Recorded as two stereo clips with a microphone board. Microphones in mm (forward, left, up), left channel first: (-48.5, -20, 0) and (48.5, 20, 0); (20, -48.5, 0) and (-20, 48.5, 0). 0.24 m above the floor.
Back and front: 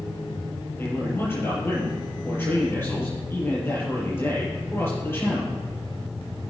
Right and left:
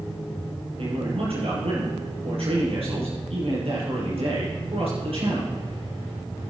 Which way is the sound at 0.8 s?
135° left.